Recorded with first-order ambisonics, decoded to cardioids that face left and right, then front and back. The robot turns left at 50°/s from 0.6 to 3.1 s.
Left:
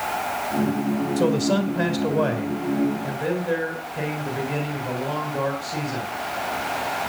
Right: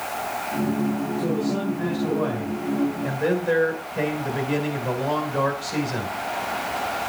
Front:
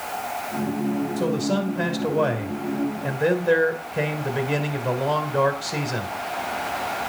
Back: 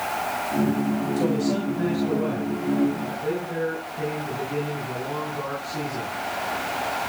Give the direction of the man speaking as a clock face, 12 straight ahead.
9 o'clock.